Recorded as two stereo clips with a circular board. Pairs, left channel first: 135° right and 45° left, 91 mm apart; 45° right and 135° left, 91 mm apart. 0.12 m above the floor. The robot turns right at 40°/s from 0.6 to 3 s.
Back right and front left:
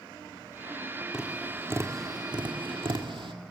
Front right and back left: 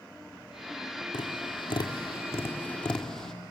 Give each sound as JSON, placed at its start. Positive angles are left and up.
{"t": 1.1, "sound": "tapping", "azimuth_deg": -35, "distance_m": 1.9}